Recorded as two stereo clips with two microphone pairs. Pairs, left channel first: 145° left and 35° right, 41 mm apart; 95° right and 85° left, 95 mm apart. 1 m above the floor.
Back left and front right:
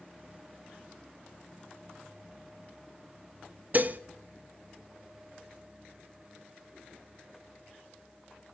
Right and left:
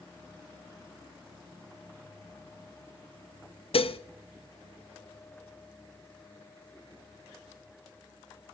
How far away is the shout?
No shout in this recording.